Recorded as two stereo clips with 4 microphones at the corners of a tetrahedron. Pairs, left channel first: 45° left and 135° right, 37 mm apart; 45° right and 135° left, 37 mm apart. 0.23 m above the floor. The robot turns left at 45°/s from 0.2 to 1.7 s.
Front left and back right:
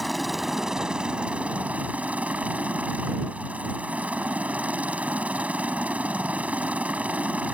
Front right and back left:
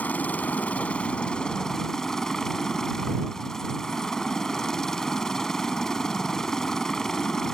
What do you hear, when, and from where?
0.0 s a helicopter: 45° right; by 7.5 s 115° right